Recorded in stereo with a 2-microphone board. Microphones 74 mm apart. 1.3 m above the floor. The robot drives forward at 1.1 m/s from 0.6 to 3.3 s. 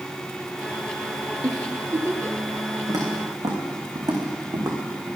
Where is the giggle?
60° right (ahead or behind), 1.4 m; by 2.5 s 35° right (ahead or behind), 2 m.